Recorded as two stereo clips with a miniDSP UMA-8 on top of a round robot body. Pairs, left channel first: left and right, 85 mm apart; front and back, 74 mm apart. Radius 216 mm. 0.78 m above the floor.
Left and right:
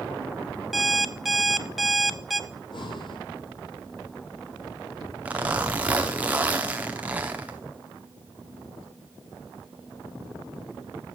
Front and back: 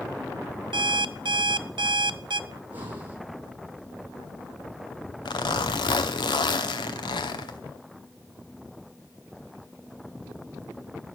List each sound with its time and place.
0.7 s an alarm clock: straight behind, 0.6 m
2.5 s breathing: 115° left, 3.5 m
5.2 s a zipper: 15° right, 0.8 m